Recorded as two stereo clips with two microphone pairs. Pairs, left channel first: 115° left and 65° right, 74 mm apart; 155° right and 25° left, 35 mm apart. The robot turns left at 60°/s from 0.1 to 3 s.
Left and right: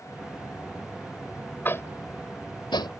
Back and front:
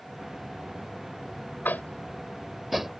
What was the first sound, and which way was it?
Tapping, straight behind.